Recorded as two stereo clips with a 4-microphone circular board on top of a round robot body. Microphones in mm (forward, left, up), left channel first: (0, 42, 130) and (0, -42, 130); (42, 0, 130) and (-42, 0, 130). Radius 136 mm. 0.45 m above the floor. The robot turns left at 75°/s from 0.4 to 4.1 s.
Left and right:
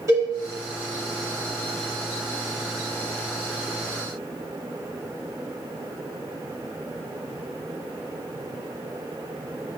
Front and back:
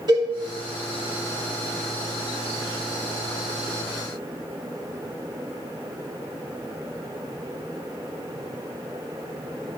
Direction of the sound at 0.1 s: 140° right.